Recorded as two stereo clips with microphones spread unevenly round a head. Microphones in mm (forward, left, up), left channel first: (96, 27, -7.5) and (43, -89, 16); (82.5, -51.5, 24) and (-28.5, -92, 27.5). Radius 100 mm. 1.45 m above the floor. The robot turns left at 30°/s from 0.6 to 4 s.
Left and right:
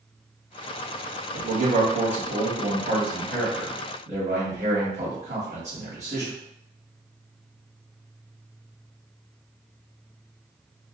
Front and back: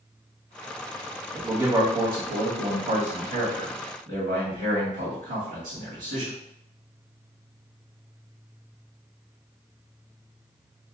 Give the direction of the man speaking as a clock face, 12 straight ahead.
3 o'clock.